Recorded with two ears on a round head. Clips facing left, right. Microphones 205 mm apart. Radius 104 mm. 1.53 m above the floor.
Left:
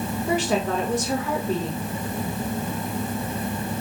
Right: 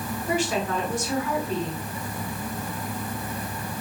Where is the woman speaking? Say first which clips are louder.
Left 2 dB; 60° left (ahead or behind), 2.5 m.